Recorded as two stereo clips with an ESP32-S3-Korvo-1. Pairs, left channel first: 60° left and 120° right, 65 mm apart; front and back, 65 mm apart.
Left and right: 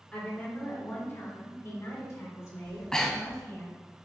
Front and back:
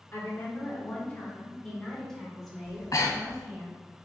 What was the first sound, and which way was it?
A woman speaking, 5° left.